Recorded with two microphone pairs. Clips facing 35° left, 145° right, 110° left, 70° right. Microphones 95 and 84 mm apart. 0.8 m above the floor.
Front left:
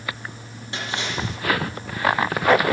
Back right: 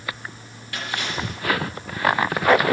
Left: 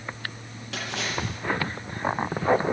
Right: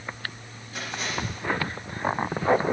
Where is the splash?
105° left, 6.5 m.